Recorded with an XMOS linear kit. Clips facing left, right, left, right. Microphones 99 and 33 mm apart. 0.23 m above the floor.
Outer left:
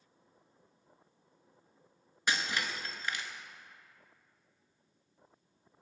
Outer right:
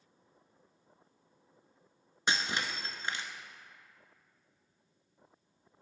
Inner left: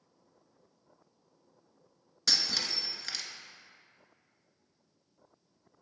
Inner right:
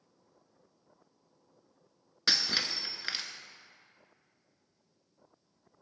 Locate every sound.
2.3 s breaking glass: 25° right (ahead or behind), 0.7 m